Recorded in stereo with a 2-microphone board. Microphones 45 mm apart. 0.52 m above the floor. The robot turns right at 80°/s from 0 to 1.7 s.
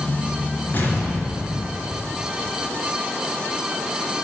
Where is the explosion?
40° left, 3 m; by 2.0 s 120° left, 3 m.